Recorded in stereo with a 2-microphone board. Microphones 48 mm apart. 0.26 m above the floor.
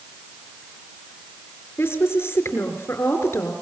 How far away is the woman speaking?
About 4 m.